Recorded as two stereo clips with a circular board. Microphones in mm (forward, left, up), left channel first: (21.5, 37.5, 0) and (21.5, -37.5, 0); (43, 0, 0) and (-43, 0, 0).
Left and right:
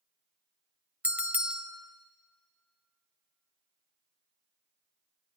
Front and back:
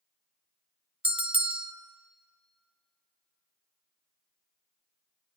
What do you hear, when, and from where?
1.0 s a bell: 160° right, 0.9 m